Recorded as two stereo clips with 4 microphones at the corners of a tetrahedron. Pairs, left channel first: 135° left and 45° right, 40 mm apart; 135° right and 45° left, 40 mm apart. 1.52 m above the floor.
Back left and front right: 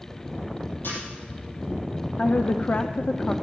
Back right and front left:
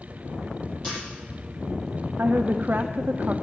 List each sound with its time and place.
0.8 s a camera shutter: 160° left, 7.5 m
2.2 s a woman speaking: 90° left, 0.5 m